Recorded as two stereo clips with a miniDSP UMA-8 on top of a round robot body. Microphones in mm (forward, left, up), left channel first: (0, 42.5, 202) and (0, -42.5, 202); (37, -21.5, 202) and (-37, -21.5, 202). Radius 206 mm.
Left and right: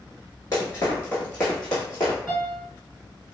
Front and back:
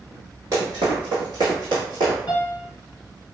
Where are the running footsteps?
140° left, 0.5 m; by 2.2 s 165° left, 1.2 m.